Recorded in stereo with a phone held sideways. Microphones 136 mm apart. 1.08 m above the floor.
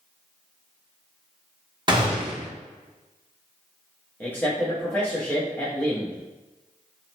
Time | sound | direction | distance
1.9 | a gunshot | 30° right (ahead or behind) | 0.7 m
4.2 | a man speaking | 10° left (ahead or behind) | 0.6 m